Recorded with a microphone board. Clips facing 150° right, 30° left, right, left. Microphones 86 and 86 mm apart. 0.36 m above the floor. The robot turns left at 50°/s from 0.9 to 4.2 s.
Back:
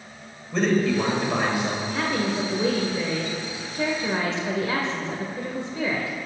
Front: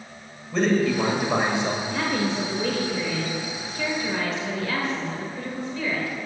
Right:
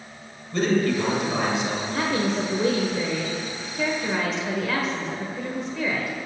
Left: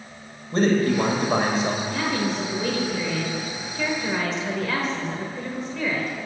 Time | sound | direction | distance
0.5 | a man speaking | 120° left | 1.7 m
1.9 | a woman speaking | 60° right | 1.1 m